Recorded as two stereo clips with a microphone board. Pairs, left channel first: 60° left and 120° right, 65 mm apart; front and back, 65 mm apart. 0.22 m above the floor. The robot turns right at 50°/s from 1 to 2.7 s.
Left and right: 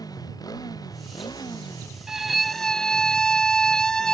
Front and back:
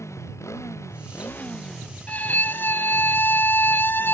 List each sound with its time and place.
0.0 s a motorcycle: 45° left; by 4.1 s 130° left
2.1 s a violin: 45° right; by 4.1 s 15° right